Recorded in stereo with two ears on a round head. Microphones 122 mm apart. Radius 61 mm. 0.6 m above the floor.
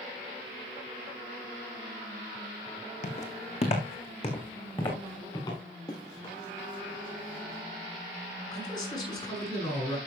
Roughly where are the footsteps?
Left.